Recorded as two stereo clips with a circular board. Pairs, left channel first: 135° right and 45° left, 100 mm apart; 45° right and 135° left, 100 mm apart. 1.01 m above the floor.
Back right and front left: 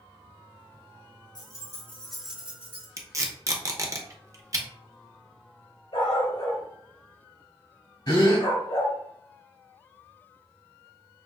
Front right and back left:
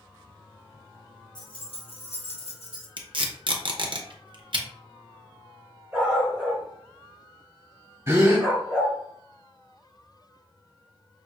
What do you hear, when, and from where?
1.4 s keys jangling: 90° right, 1.2 m; by 2.9 s 20° right, 1.6 m
3.0 s tape being pulled: 100° left, 0.7 m
5.9 s a dog barking: 145° right, 2.5 m
8.1 s a gasp: 165° right, 1.5 m